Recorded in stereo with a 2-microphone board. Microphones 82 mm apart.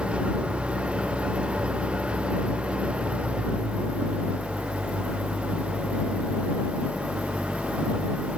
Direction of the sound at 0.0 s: 15° right (ahead or behind).